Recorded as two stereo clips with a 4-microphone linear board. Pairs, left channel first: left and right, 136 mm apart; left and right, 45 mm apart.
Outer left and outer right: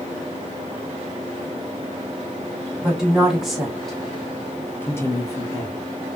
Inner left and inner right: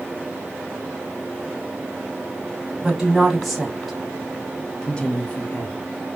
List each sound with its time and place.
2.8 s a woman speaking: 5° right (ahead or behind), 1.4 m; by 5.8 s 25° left (ahead or behind), 0.7 m